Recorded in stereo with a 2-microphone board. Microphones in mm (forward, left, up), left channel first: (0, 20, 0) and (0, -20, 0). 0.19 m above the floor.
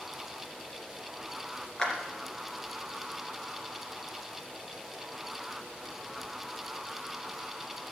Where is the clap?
20° left (ahead or behind), 2.5 m.